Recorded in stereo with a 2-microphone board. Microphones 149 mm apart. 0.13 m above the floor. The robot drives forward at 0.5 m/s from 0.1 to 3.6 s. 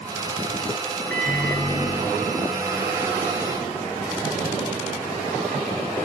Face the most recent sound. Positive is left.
turn(degrees=10)  # may be behind; listen again after turning